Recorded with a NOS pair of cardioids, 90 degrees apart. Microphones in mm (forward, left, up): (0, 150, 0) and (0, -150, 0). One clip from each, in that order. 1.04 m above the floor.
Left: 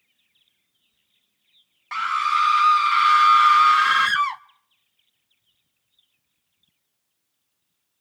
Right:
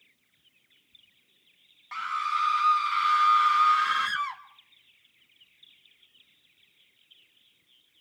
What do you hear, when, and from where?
1.9 s a scream: 40° left, 0.9 m